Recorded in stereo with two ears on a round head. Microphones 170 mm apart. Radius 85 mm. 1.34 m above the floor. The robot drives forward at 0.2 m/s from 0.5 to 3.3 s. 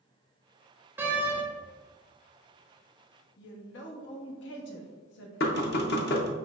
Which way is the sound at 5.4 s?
55° left (ahead or behind).